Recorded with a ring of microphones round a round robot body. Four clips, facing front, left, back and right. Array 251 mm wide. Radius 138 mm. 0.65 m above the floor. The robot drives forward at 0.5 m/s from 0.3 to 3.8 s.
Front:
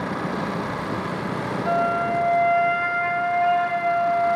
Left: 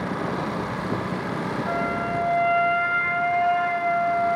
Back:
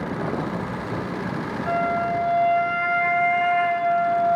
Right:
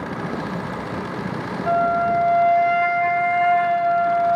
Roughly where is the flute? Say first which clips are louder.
Right 11 dB, front 1 dB; right.